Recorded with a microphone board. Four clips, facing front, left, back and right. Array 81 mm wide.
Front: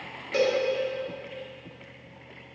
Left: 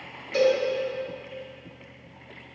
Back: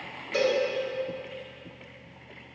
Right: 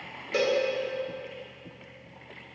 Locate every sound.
0.3 s a cowbell: 55° right, 2 m